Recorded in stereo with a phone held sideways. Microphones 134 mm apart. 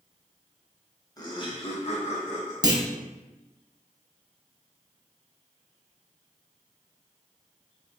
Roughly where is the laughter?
Left.